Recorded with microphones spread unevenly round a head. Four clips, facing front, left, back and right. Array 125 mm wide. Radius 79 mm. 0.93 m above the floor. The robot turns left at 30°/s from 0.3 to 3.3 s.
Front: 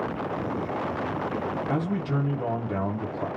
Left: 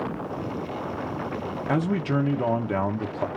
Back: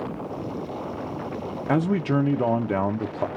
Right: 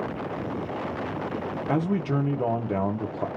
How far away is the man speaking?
About 0.8 m.